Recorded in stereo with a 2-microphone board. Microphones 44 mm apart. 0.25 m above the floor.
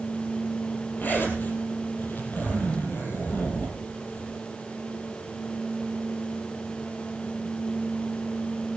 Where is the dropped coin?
I don't hear a dropped coin.